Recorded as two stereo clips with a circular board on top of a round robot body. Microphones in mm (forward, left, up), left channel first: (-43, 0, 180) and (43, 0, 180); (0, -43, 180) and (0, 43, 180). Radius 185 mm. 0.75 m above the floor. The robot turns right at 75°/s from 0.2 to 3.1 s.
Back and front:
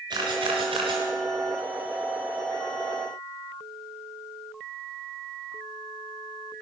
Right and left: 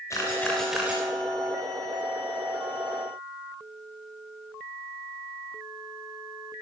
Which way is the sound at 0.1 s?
35° right.